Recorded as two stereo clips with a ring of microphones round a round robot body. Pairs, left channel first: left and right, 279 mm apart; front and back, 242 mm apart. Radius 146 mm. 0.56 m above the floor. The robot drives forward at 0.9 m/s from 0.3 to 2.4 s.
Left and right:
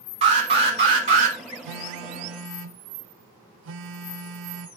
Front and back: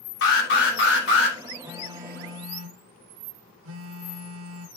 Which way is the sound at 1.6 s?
90° right.